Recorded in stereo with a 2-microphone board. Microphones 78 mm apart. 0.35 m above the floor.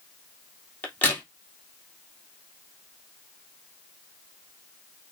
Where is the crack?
20° left (ahead or behind), 3 m.